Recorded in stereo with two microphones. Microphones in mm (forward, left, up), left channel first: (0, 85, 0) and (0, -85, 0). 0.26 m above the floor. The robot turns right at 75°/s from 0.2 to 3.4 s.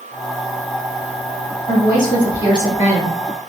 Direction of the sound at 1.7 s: 50° left.